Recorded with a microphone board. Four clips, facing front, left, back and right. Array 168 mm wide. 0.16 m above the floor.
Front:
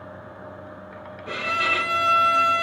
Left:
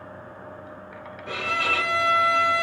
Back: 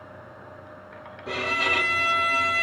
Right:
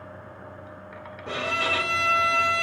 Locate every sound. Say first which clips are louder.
1.3 s a violin: left 1 dB, front 1 dB; 130° right, 2 m